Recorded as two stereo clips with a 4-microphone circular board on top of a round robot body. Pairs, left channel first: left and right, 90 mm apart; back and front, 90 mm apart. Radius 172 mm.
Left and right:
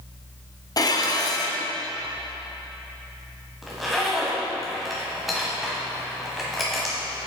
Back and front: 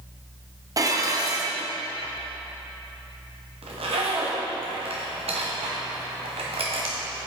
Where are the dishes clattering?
45° left, 1.0 m.